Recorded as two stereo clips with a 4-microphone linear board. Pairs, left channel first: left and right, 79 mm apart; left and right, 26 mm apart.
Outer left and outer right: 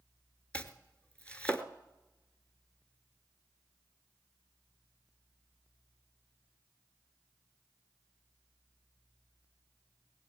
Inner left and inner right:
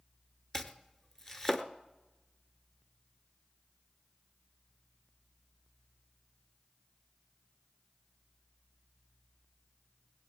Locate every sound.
0.5 s chopping: 15° left (ahead or behind), 0.9 m